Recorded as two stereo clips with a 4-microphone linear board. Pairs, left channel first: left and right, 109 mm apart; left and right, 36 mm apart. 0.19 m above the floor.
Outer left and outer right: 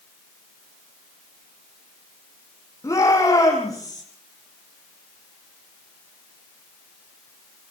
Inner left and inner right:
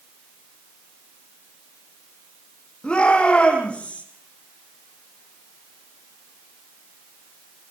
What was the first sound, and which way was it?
A shout, 25° left (ahead or behind).